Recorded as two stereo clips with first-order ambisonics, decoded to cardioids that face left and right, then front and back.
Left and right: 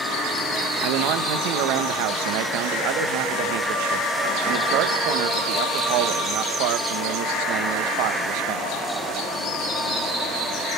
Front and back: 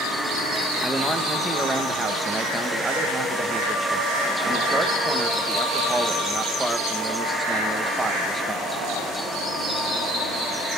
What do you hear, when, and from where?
0.8 s a man speaking: 95° right, 1.6 m